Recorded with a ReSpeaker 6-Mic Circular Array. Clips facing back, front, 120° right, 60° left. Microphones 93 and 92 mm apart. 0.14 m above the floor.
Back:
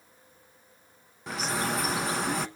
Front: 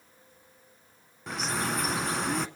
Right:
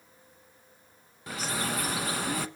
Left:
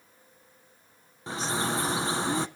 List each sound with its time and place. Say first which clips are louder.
1.3 s a bird: back 1 dB, left 3 dB; 95° left, 0.9 m